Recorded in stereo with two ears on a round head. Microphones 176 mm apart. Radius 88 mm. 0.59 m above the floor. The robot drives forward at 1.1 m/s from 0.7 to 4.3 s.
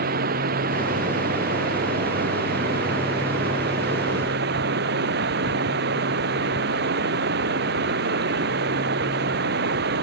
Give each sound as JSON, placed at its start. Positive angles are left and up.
{"t": 0.0, "sound": "running water", "side_deg": -45}